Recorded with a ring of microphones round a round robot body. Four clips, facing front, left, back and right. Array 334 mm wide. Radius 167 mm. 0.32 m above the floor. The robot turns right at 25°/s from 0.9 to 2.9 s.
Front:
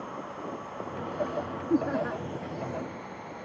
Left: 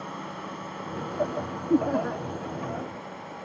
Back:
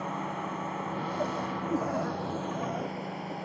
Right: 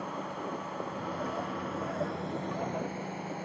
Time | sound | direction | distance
0.0 | a drone | 170° left | ?
1.7 | laughter | 65° left | ?